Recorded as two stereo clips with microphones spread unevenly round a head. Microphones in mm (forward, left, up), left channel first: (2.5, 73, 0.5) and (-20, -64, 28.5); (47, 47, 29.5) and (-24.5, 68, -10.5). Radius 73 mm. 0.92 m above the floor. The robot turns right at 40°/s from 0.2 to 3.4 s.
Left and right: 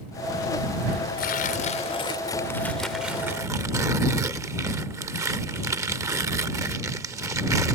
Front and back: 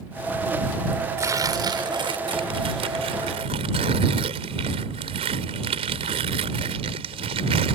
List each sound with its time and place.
1.2 s tearing paper: 105° left; by 7.8 s 165° right